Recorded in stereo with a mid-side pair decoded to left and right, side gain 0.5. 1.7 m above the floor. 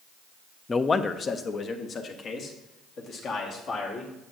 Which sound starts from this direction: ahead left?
A man speaking, at 0.7 s.